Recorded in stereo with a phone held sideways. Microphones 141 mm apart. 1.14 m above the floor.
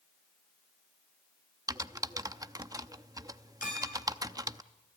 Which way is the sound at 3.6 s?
70° left (ahead or behind).